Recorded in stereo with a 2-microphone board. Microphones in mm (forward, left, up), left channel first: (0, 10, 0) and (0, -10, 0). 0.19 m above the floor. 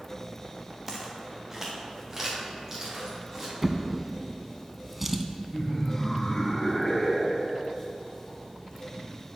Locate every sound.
0.9 s footsteps: 15° right (ahead or behind), 1.5 m; by 3.5 s 20° right (ahead or behind), 3.5 m
3.6 s a drawer: 10° right (ahead or behind), 0.5 m
5.5 s laughter: 25° left (ahead or behind), 1.2 m